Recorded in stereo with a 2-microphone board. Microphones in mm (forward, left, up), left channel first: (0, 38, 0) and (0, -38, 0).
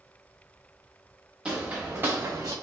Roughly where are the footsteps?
Centre.